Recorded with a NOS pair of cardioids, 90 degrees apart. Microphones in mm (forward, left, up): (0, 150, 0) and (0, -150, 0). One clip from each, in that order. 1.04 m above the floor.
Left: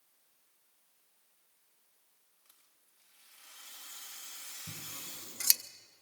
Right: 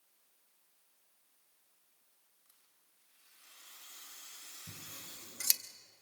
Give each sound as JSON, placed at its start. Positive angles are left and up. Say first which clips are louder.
{"t": 2.5, "sound": "a rattle", "louder": "left 4 dB", "azimuth_deg": 25, "distance_m": 5.0}
{"t": 4.7, "sound": "scissors", "louder": "left 4 dB", "azimuth_deg": 10, "distance_m": 1.1}